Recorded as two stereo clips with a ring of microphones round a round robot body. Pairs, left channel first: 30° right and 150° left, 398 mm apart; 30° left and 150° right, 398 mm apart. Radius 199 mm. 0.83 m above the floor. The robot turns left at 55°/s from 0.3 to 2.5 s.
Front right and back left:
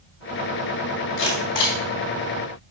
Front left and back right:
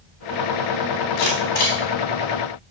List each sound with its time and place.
1.2 s a camera shutter: 20° left, 3 m; by 1.8 s 15° right, 3 m